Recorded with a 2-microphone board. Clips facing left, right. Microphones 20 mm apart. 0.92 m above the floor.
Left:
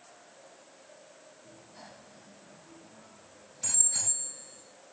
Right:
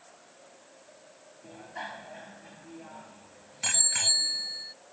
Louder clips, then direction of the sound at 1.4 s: Right 13 dB; 70° right (ahead or behind).